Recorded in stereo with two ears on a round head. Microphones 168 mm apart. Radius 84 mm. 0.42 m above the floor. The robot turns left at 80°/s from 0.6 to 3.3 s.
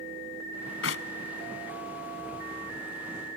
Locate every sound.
0.8 s a clap: 75° left (ahead or behind); by 1.1 s 60° left (ahead or behind)